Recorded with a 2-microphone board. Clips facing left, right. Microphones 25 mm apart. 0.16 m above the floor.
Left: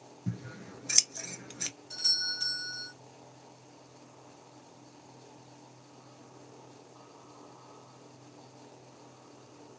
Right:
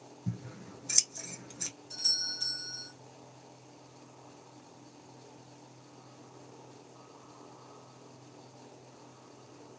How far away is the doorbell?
About 2 m.